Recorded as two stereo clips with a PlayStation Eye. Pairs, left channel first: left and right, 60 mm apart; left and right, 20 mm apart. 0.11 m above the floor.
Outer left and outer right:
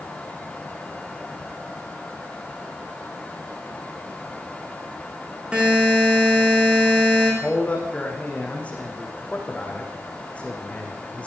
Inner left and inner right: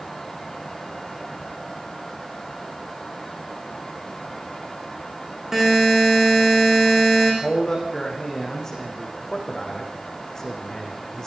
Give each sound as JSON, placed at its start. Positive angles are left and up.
{"t": 5.5, "sound": "a buzzer", "side_deg": -20, "distance_m": 7.5}
{"t": 7.4, "sound": "a man speaking", "side_deg": 20, "distance_m": 6.0}